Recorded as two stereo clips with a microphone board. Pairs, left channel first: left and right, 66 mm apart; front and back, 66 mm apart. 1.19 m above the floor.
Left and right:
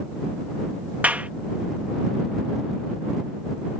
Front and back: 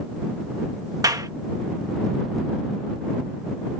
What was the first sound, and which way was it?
A clap, 160° right.